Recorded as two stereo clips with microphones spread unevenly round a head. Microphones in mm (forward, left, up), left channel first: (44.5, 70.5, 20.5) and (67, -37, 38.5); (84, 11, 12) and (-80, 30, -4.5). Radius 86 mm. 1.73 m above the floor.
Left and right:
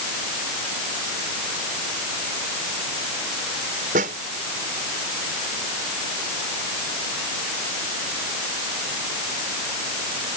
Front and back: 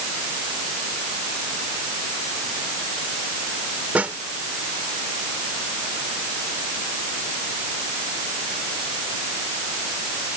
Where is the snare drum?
105° right.